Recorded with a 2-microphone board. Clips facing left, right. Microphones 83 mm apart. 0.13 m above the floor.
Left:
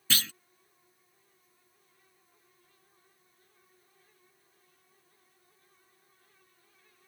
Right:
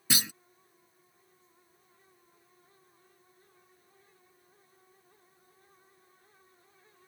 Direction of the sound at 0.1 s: 15° right (ahead or behind).